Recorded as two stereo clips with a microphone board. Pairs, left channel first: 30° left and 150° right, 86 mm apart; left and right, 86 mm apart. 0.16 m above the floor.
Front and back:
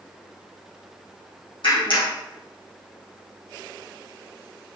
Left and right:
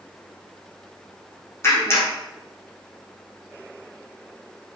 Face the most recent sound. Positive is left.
turn(degrees=30)